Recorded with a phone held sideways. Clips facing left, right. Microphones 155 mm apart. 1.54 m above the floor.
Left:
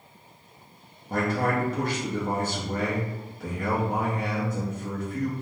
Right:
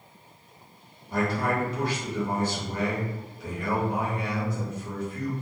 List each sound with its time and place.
1.1 s a man speaking: 55° left (ahead or behind), 0.7 m